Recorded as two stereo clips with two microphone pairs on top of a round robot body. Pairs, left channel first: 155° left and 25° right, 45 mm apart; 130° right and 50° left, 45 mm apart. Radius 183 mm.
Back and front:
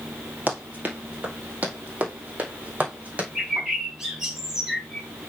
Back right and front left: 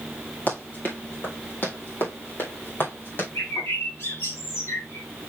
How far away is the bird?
About 2 m.